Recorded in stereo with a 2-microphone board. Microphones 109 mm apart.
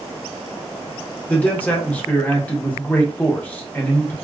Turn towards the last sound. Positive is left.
turn(degrees=15)  # may be behind; listen again after turning